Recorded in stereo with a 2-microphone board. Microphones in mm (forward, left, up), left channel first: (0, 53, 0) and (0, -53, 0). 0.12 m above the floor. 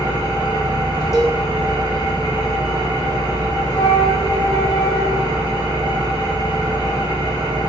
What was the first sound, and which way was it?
An engine running, 45° left (ahead or behind).